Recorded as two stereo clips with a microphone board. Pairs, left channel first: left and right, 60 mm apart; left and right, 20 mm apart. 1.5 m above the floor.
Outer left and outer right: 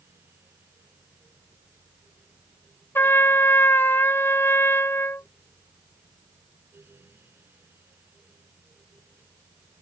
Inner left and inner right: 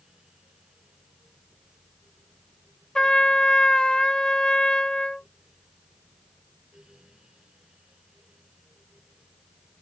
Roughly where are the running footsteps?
No running footsteps in this recording.